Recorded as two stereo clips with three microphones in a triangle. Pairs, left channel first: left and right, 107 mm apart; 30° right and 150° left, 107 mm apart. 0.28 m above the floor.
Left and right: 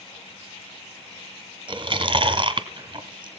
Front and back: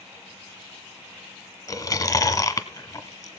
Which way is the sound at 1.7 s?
75° right.